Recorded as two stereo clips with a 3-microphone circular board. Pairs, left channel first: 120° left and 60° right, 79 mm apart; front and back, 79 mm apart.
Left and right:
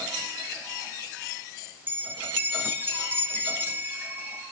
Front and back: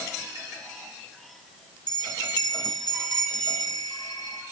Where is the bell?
Straight ahead, 1.2 m.